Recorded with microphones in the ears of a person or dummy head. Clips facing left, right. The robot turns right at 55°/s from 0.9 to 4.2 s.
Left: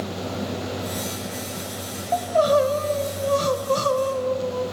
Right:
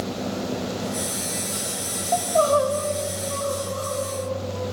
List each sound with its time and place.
2.1 s crying: 5° left, 2.0 m; by 4.6 s 120° left, 2.0 m